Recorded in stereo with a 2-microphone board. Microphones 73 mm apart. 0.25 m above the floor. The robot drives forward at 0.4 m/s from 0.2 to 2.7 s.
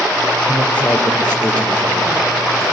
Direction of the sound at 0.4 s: 25° left (ahead or behind).